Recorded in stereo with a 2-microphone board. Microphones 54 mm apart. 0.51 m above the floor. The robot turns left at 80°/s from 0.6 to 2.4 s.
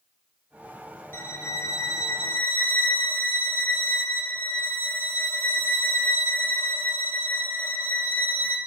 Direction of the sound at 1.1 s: 135° left.